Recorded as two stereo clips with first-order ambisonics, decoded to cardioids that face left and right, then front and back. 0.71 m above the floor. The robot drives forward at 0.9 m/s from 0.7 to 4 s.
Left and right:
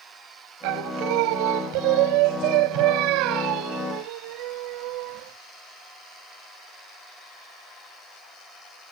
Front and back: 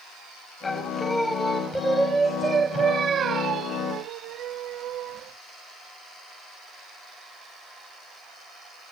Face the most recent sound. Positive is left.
turn(degrees=-125)